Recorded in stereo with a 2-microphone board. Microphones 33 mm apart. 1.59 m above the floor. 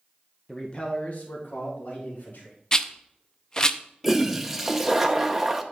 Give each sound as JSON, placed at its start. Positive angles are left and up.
{"t": 0.5, "sound": "a man speaking", "side_deg": 10, "distance_m": 0.8}
{"t": 2.7, "sound": "a rattle", "side_deg": 25, "distance_m": 0.5}
{"t": 4.0, "sound": "a toilet flushing", "side_deg": -10, "distance_m": 0.6}